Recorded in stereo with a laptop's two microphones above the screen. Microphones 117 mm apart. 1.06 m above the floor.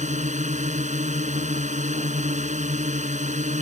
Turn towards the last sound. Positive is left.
turn(degrees=-80)